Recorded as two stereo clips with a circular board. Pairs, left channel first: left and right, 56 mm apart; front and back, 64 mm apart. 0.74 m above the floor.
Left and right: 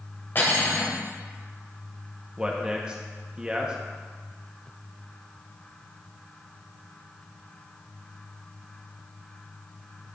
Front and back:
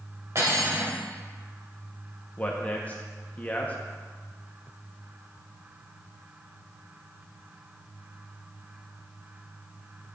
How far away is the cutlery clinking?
About 2 m.